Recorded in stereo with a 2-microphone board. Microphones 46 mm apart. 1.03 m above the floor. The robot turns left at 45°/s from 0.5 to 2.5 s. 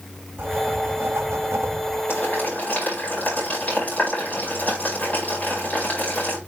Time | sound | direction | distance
0.4 | writing | 45° right | 1.8 m
2.1 | boiling | 55° left (ahead or behind) | 5 m